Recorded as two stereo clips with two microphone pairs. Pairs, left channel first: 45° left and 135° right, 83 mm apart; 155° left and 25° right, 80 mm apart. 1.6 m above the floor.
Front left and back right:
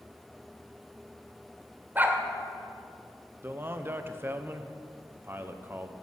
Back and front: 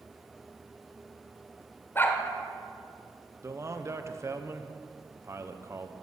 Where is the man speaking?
75° right, 1.0 m.